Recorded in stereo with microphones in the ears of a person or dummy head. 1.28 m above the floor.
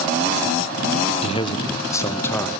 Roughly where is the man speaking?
Left.